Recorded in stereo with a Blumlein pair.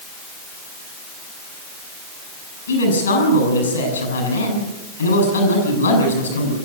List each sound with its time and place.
2.7 s a man speaking: 70° left, 8.5 m